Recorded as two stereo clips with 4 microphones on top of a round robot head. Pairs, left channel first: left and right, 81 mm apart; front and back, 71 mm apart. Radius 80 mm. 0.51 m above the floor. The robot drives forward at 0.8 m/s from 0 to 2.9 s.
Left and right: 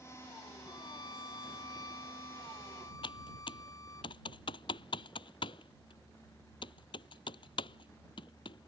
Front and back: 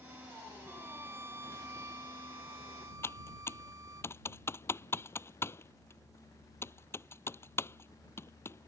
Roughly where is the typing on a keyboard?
Ahead left.